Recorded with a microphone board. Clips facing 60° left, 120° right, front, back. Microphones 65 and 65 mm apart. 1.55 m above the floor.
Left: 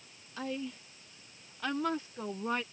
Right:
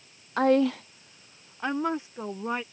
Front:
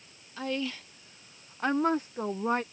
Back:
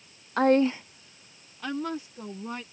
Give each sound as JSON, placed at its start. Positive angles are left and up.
{"t": 0.4, "sound": "a woman speaking", "azimuth_deg": -150}